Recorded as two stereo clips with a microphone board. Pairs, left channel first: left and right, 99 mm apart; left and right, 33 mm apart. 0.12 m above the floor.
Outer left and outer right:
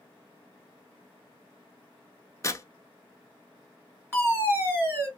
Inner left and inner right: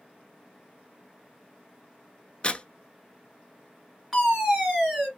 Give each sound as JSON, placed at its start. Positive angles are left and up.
{"t": 2.4, "sound": "tearing paper", "side_deg": 30, "distance_m": 0.6}
{"t": 4.1, "sound": "a fire alarm", "side_deg": -20, "distance_m": 3.0}